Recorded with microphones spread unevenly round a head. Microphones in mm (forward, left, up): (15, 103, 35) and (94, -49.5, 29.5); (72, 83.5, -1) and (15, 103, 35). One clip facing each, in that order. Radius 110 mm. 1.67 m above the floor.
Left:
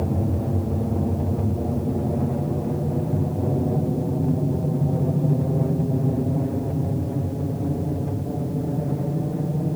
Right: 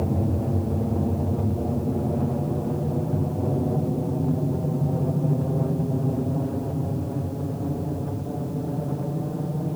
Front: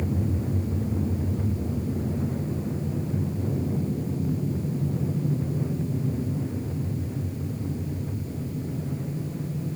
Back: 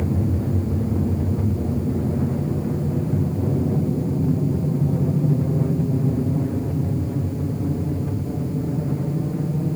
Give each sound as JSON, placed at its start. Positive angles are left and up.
{"t": 0.0, "sound": "an aircraft", "azimuth_deg": -150}